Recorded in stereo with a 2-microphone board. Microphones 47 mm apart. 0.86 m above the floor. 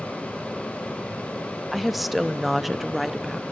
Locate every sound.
1.7 s a woman speaking: centre (ahead or behind), 0.7 m